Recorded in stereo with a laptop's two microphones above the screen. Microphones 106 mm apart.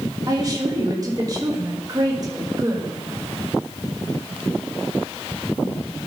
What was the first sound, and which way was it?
A woman speaking, 35° right (ahead or behind).